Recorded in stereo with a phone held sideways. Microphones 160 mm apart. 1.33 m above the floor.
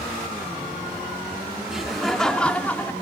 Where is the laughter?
5° right (ahead or behind), 2.5 m; by 2.9 s 10° left (ahead or behind), 2.5 m.